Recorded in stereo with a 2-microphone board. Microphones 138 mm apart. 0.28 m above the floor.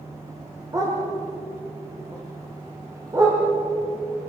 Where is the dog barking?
25° right (ahead or behind), 7 m.